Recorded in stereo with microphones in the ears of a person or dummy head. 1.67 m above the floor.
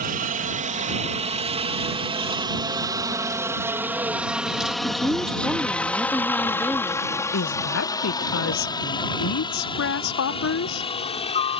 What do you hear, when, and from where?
0.0 s a helicopter: 40° right (ahead or behind); by 11.6 s 35° left (ahead or behind)
4.8 s a woman speaking: 5° right (ahead or behind)
7.3 s a woman speaking: 80° left